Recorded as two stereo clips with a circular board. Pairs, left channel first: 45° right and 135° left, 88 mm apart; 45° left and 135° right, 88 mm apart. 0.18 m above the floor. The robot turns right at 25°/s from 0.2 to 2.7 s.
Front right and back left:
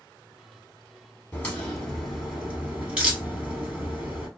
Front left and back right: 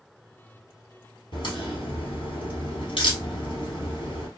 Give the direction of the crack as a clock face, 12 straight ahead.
11 o'clock.